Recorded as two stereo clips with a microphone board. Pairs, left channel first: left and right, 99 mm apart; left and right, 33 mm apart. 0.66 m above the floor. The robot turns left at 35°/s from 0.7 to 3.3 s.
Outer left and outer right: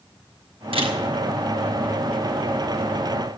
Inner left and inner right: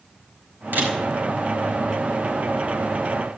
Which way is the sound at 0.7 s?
75° right (ahead or behind).